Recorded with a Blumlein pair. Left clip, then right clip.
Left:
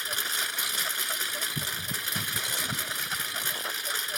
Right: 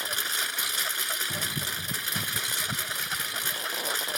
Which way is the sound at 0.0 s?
Straight ahead.